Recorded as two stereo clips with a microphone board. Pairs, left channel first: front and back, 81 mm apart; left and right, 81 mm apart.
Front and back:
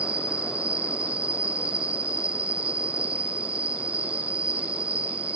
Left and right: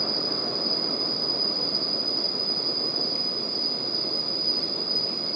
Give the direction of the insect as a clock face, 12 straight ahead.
4 o'clock.